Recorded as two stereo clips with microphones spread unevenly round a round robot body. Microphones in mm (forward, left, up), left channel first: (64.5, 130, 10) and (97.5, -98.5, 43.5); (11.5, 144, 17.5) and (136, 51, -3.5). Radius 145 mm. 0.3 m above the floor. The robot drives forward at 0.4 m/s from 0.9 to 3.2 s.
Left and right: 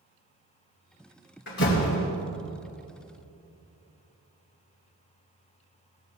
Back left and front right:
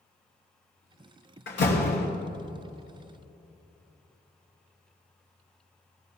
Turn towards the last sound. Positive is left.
turn(degrees=155)